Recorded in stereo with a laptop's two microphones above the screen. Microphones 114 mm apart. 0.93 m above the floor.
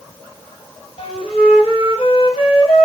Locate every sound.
1.0 s a flute: 55° left (ahead or behind), 0.8 m